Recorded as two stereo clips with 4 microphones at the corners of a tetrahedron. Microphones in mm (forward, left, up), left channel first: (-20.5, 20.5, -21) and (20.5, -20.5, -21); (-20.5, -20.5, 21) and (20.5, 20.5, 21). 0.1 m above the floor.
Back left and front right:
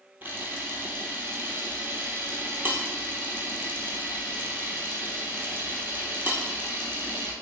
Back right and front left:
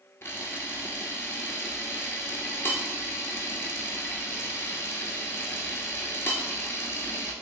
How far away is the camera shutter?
About 0.7 m.